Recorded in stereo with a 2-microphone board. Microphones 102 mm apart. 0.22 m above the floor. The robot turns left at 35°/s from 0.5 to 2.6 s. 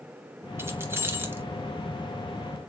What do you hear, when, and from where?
0.6 s keys jangling: 20° right (ahead or behind), 0.8 m